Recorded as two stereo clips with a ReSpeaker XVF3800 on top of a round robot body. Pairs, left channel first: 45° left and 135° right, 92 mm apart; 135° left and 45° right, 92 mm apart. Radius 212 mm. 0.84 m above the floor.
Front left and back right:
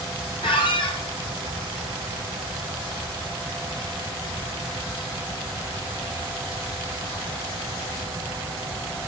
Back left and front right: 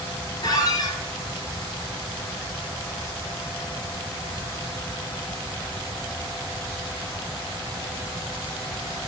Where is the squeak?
80° left, 2 m.